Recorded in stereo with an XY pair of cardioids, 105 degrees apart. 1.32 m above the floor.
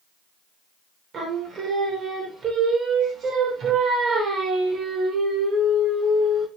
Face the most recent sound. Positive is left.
turn(degrees=-55)